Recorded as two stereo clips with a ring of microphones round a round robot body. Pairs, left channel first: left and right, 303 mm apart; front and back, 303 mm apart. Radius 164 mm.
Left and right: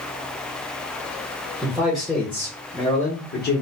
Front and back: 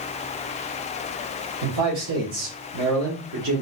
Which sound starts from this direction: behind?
A man speaking, at 1.6 s.